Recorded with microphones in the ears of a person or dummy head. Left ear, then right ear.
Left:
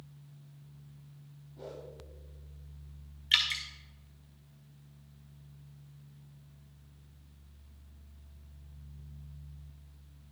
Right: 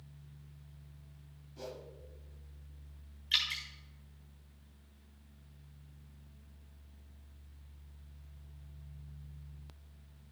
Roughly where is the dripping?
Centre.